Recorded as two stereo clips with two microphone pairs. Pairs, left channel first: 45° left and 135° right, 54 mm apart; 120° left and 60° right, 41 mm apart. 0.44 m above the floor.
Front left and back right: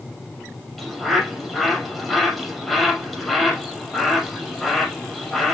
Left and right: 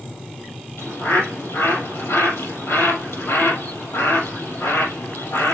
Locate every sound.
0.8 s a bird: 130° left, 4.5 m